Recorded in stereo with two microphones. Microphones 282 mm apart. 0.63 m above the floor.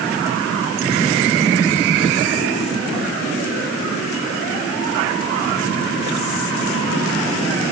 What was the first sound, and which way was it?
Only background noise.